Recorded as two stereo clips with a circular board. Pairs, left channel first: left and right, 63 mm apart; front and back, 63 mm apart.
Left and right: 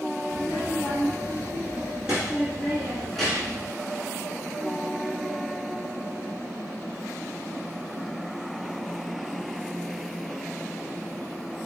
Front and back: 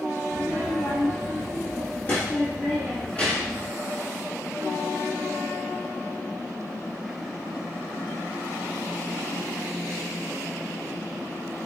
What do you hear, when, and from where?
0.3 s a child speaking: 45° right, 1.9 m; by 3.7 s 50° left, 1.2 m